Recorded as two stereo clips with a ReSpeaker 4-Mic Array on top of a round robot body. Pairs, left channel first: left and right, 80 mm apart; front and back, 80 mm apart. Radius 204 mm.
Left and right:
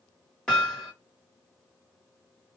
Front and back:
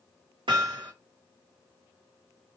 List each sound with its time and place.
0.5 s hammering: 170° left, 1.1 m